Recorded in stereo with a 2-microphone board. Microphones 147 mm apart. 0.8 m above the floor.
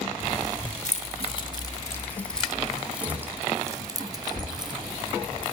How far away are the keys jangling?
About 1.5 m.